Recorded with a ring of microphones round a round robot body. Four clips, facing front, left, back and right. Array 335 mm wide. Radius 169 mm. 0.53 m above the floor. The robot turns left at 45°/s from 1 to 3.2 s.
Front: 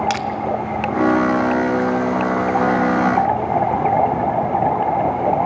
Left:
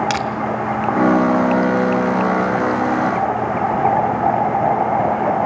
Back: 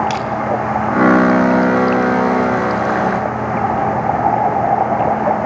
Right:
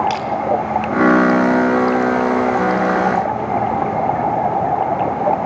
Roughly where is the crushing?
Ahead left.